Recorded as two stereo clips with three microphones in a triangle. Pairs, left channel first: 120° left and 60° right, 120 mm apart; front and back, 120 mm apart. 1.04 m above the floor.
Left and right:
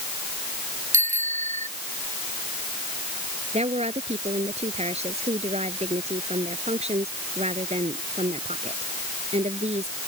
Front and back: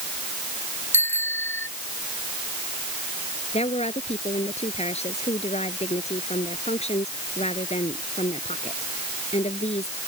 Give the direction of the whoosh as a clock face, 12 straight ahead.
I don't hear a whoosh.